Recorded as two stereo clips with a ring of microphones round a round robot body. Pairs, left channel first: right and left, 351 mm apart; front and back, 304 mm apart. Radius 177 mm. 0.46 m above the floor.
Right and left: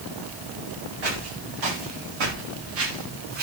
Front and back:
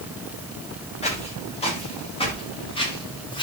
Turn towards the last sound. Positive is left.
turn(degrees=75)